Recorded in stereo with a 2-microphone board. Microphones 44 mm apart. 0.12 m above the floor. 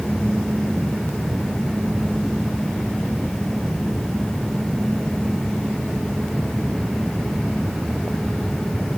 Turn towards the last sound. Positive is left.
No sound to turn to.